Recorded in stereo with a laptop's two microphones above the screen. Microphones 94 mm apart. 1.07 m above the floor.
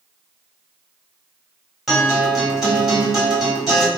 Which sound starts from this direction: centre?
A guitar, at 1.9 s.